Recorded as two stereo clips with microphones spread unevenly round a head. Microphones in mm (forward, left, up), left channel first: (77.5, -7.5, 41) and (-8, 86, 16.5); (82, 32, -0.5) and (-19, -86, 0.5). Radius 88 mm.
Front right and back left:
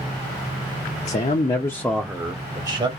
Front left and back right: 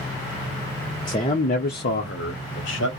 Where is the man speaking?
15° right, 0.7 m; by 2.9 s 80° left, 1.0 m.